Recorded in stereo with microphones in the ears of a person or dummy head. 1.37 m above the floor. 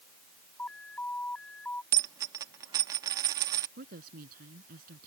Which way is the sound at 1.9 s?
20° right (ahead or behind).